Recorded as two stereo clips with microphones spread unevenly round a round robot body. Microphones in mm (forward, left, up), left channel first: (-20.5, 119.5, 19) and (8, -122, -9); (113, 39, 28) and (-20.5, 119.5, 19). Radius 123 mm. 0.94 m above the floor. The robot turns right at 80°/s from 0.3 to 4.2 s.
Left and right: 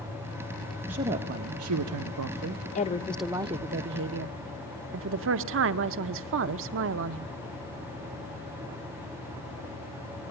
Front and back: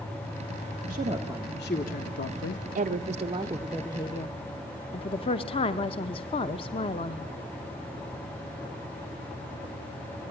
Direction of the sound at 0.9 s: 165° right.